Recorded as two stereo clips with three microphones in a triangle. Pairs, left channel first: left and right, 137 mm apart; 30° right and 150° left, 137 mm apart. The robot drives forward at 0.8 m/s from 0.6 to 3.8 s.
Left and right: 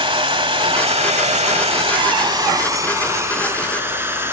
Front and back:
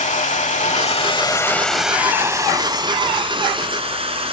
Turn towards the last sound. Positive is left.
turn(degrees=-165)